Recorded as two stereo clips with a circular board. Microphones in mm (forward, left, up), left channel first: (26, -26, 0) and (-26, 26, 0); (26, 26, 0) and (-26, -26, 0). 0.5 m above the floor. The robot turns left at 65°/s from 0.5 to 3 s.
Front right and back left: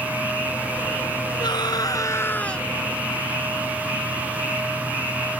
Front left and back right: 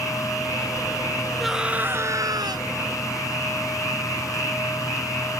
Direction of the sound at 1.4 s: 45° right.